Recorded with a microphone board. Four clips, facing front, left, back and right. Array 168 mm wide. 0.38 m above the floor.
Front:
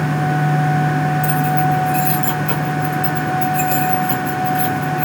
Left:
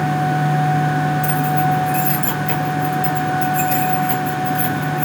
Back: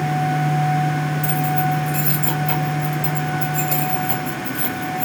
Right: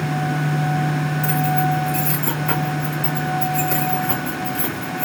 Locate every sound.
1.2 s keys jangling: 60° right, 2.5 m